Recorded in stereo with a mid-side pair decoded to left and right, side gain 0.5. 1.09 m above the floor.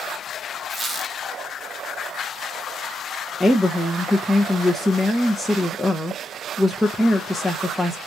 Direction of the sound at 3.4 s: 10° left.